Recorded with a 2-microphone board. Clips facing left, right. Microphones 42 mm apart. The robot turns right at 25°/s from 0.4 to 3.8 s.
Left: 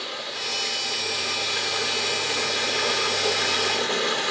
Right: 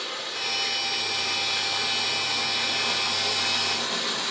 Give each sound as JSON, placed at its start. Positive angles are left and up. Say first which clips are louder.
{"t": 0.0, "sound": "running water", "louder": "even", "azimuth_deg": 10, "distance_m": 2.0}